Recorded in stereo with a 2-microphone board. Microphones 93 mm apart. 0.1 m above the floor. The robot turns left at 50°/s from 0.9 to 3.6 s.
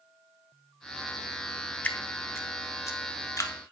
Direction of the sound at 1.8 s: 15° left (ahead or behind).